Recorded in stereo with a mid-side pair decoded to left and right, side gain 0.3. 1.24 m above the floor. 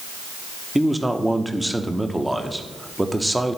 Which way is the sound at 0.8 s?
10° right.